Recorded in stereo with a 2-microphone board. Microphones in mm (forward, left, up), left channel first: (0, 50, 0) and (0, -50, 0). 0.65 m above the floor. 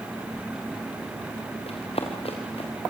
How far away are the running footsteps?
About 5 m.